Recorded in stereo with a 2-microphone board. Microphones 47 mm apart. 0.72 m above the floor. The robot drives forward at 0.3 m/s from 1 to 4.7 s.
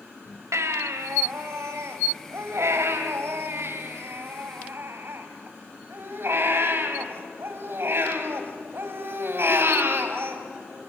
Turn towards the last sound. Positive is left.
turn(degrees=-55)  # may be behind; listen again after turning